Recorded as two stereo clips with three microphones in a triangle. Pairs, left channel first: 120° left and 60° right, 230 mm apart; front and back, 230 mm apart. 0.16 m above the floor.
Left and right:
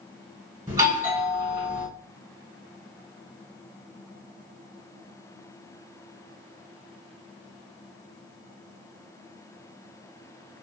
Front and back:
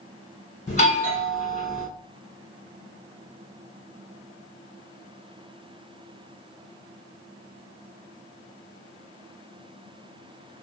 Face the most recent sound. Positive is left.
turn(degrees=0)